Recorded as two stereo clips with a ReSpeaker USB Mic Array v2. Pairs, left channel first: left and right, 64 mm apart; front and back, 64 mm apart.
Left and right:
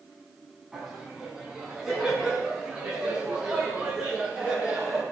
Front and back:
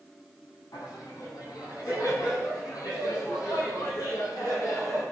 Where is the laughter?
5° right, 6 m; by 5.0 s 15° right, 10 m.